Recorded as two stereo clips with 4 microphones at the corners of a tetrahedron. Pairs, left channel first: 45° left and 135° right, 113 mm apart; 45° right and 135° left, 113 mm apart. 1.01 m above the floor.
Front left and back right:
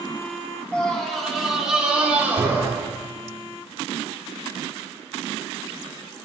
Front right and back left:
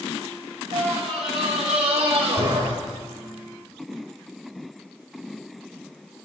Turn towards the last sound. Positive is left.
turn(degrees=160)